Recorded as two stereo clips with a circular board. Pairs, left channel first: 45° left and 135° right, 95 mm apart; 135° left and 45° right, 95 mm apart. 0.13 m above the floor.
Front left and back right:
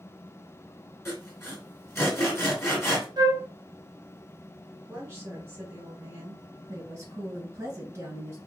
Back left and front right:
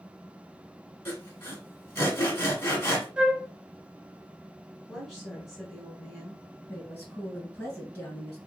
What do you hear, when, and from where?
1.1 s sawing: 90° left, 1.7 m
3.2 s a flute: 120° right, 0.7 m
4.9 s a woman speaking: 140° right, 1.5 m
6.7 s a woman speaking: 155° right, 1.6 m